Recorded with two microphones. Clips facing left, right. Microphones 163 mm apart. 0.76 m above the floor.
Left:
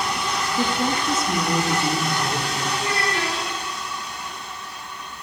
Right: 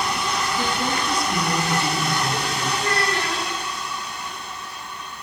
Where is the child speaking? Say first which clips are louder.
Right 2 dB; 10° left (ahead or behind), 5.5 m.